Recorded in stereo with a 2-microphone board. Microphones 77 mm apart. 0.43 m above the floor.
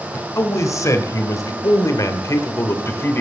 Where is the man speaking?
40° left (ahead or behind), 1.6 m; by 3.2 s 30° left (ahead or behind), 1.1 m.